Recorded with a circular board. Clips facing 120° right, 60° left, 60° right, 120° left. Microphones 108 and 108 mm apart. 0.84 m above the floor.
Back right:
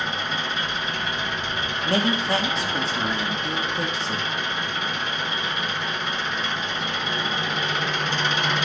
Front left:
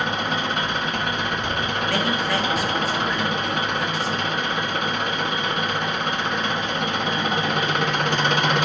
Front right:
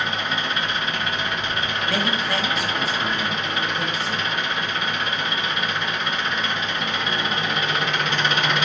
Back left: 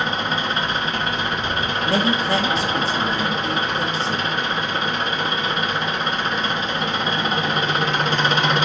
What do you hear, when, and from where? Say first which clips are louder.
0.0 s an engine running: front left 4 dB, back left 3 dB; 70° left, 0.9 m
1.8 s a man speaking: back right 3 dB, back left 5 dB; straight behind, 1.1 m